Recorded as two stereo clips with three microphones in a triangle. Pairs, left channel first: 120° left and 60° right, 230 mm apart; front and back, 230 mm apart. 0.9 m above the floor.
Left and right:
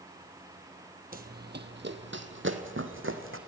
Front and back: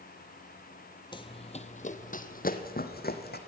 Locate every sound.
1.1 s running footsteps: 60° right, 1.1 m; by 3.4 s 40° right, 2 m